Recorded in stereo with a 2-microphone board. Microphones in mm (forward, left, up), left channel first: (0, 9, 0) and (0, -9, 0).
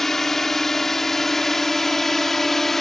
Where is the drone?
25° left (ahead or behind).